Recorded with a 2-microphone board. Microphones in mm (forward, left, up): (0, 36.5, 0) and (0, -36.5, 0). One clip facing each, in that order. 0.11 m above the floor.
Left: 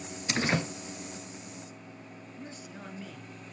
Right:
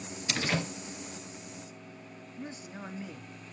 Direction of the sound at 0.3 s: 35° left (ahead or behind).